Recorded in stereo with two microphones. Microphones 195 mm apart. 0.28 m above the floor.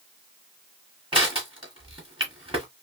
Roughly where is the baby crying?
I don't hear a baby crying.